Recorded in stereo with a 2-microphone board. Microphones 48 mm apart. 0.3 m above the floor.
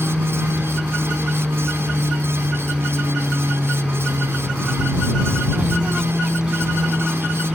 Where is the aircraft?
15° right (ahead or behind).